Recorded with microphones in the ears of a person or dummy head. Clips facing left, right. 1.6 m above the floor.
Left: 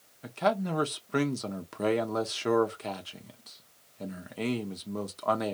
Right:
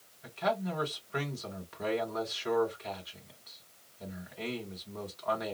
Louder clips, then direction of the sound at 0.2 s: Left 4 dB; 55° left (ahead or behind).